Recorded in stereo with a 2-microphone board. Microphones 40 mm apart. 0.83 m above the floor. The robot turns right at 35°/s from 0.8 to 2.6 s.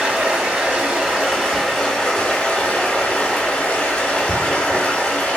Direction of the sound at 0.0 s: 30° right.